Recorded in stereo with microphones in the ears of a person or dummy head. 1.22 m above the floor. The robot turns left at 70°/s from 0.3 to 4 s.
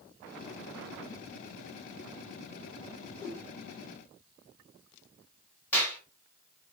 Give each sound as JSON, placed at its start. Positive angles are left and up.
{"t": 3.0, "sound": "a whoosh", "side_deg": 0, "distance_m": 1.0}
{"t": 5.7, "sound": "a clap", "side_deg": 10, "distance_m": 1.1}